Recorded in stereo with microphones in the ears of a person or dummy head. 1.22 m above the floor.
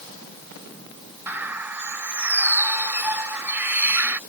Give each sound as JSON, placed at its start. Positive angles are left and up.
{"t": 1.3, "sound": "a bird", "side_deg": -5}